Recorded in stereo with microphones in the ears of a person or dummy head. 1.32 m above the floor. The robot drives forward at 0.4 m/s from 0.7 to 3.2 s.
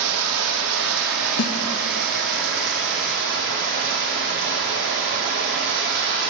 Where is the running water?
85° right, 2 m; by 6.3 s 65° right (ahead or behind), 2.5 m.